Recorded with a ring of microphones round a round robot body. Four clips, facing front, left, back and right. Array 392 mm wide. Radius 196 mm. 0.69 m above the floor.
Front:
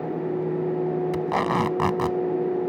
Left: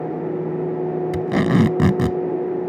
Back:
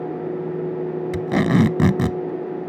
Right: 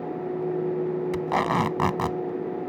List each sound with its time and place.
1.1 s tape being pulled: 135° left